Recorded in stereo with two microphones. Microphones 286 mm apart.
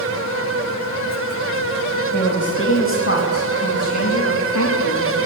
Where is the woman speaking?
35° left (ahead or behind), 3.5 m; by 5.2 s 70° left (ahead or behind), 3.5 m.